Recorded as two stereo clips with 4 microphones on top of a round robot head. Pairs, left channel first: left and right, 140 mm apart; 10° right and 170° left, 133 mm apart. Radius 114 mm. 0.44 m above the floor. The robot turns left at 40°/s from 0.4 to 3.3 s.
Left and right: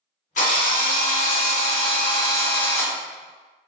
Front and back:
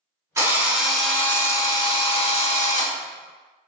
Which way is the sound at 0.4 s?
105° left.